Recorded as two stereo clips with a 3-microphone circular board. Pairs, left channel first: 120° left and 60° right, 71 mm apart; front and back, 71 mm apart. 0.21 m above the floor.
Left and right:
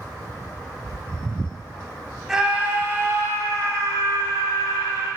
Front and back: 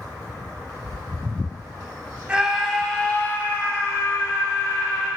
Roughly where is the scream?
Behind right.